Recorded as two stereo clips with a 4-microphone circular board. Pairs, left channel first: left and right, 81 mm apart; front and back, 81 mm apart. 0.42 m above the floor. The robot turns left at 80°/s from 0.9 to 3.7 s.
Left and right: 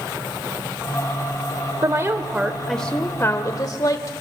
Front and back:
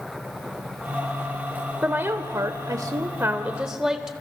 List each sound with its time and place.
1.8 s a woman speaking: 115° right, 1.3 m; by 4.1 s 95° left, 1.3 m